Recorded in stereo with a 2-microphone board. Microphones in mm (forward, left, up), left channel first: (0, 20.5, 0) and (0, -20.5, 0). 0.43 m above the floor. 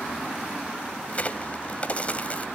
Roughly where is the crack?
Left.